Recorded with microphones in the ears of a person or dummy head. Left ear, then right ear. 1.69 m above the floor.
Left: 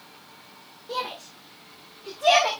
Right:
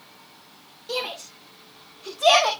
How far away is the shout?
About 1.9 m.